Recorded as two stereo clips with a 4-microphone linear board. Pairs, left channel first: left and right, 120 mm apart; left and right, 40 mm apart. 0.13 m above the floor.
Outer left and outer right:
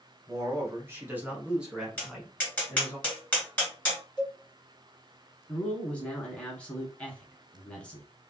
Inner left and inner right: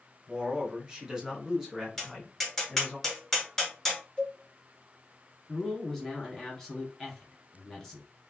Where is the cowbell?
30° left (ahead or behind), 2 m.